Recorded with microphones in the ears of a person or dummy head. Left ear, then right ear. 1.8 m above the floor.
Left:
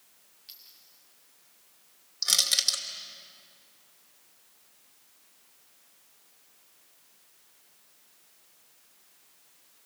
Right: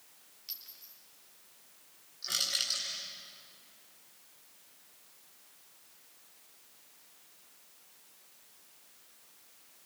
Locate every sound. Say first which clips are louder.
0.5 s a clink: right 3 dB; 35° right (ahead or behind), 3 m
2.2 s crushing: left 8 dB; 80° left, 2.5 m